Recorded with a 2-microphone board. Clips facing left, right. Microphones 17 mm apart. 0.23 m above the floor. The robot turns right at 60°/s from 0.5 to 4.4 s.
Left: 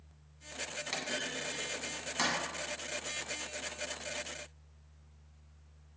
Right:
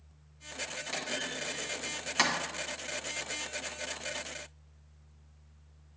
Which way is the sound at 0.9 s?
25° left (ahead or behind).